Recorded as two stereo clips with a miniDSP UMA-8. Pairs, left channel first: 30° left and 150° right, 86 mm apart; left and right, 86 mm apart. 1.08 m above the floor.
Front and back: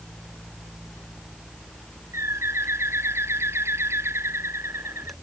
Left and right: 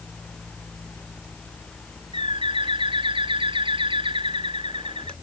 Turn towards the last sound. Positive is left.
turn(degrees=-90)